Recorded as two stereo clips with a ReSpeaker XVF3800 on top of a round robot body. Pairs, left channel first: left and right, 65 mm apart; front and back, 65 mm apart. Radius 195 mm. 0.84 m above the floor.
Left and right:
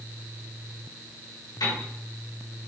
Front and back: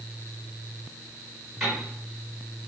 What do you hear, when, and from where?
1.6 s a piano: 90° left, 4 m